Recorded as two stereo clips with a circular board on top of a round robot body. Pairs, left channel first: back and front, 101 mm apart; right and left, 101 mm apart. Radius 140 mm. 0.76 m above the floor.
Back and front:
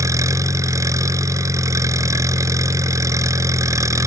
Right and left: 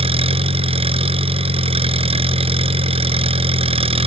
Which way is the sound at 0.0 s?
60° left.